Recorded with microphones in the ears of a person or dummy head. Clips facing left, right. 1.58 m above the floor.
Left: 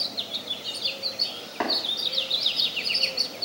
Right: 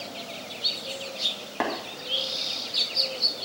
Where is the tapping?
35° right (ahead or behind), 2 m.